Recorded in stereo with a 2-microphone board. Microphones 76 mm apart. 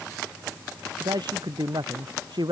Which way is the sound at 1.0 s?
75° right (ahead or behind).